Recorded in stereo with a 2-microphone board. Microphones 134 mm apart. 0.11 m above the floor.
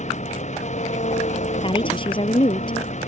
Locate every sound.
0.0 s an engine running: 60° left (ahead or behind)
1.6 s a woman speaking: 40° left (ahead or behind)